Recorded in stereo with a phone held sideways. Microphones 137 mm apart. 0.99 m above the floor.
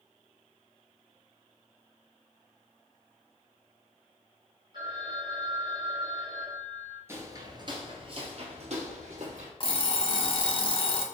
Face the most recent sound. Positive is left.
turn(degrees=40)  # may be behind; listen again after turning